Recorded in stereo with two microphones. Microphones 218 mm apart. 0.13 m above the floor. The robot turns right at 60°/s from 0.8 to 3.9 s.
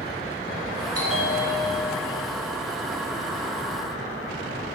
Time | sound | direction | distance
0.9 | a bell | 65° left | 1.7 m